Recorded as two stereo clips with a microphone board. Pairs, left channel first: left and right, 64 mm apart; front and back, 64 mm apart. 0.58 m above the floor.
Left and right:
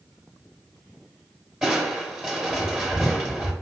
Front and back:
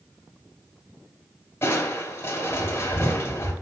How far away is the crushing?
About 1.2 m.